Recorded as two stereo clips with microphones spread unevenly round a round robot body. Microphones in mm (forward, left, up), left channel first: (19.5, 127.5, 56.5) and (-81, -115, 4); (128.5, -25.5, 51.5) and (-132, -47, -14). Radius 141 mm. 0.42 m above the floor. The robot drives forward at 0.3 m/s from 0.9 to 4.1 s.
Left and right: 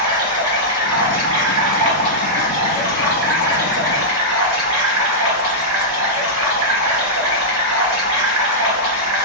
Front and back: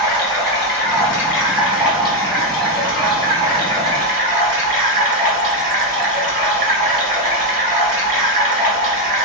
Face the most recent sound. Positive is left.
turn(degrees=-120)